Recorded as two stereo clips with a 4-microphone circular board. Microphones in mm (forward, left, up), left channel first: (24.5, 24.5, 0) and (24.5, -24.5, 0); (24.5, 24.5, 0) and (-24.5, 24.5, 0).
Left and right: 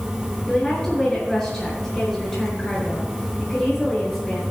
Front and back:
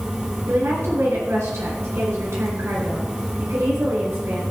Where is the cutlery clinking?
I don't hear cutlery clinking.